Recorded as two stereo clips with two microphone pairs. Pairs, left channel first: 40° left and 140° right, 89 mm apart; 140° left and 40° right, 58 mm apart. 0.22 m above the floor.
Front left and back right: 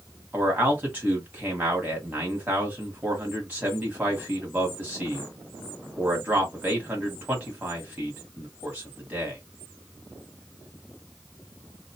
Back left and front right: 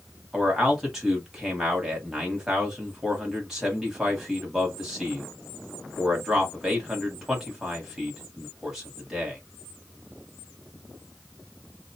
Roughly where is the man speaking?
Behind right.